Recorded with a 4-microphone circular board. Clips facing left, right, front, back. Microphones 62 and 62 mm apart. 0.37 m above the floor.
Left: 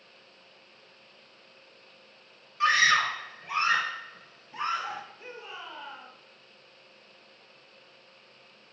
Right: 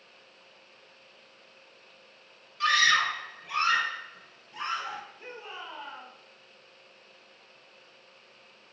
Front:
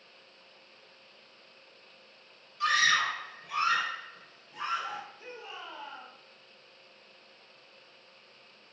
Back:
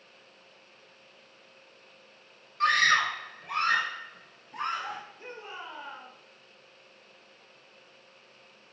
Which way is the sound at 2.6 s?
150° left.